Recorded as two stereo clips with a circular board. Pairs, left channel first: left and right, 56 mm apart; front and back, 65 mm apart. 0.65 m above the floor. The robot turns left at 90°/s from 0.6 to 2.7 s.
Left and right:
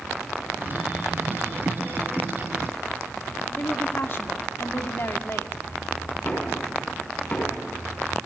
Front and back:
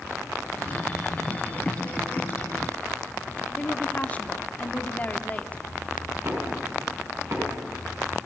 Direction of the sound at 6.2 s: 145° left.